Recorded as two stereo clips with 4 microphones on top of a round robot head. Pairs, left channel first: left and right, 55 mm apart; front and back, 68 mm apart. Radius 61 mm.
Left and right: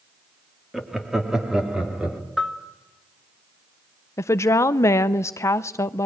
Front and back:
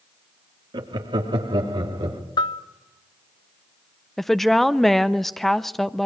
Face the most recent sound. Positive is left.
turn(degrees=85)